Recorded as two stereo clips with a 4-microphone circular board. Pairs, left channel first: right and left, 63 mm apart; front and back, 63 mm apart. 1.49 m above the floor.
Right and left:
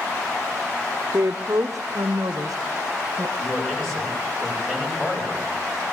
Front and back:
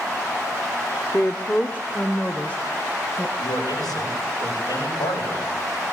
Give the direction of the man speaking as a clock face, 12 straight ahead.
12 o'clock.